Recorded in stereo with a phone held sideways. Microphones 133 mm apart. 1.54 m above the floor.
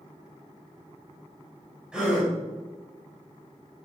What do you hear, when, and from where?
1.9 s a gasp: 5° right (ahead or behind), 3 m